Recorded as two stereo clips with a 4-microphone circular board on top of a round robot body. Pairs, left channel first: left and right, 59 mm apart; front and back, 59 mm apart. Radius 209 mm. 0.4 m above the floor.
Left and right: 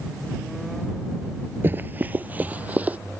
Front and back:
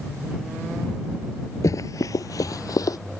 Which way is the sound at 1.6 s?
30° right.